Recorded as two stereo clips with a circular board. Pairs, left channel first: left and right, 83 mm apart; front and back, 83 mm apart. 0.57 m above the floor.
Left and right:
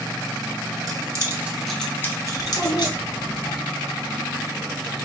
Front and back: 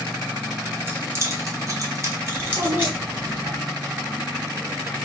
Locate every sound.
0.9 s keys jangling: 120° right, 0.9 m; by 3.0 s 115° left, 1.3 m
2.4 s a child speaking: 130° left, 2.5 m